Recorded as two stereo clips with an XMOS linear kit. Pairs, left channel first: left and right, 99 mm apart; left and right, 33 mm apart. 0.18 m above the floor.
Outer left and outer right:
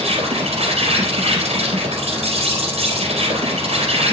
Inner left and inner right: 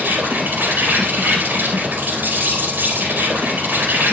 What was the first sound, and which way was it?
An insect, 75° right (ahead or behind).